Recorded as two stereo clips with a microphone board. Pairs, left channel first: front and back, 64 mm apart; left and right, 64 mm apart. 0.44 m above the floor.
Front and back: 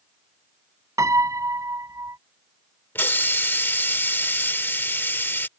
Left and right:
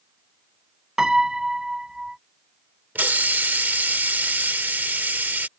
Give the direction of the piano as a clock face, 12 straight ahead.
6 o'clock.